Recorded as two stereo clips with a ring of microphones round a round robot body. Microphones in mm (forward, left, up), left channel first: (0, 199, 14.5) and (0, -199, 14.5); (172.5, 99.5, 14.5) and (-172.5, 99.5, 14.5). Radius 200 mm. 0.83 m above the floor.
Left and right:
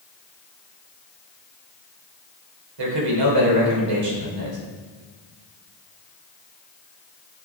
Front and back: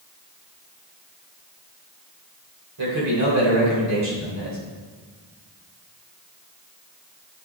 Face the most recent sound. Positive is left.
turn(degrees=-125)